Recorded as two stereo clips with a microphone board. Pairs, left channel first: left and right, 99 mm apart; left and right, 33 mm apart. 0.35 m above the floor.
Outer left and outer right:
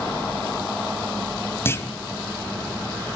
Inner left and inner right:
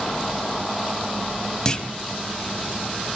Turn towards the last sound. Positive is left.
turn(degrees=25)  # may be behind; listen again after turning